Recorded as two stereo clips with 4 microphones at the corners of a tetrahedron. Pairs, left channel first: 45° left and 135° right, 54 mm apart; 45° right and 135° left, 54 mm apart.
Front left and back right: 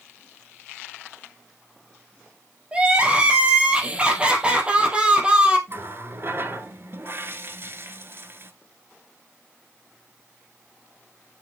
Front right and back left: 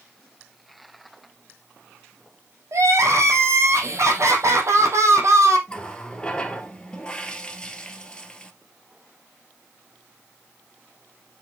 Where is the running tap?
115° right, 1.3 m.